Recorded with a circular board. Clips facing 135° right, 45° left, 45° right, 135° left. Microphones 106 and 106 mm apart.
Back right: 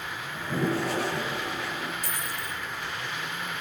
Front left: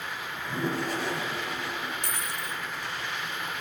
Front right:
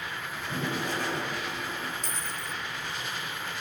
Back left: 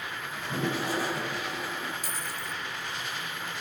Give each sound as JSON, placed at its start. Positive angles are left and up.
{"t": 0.3, "sound": "a toilet flushing", "azimuth_deg": -140, "distance_m": 7.0}
{"t": 2.0, "sound": "a dropped coin", "azimuth_deg": 50, "distance_m": 3.5}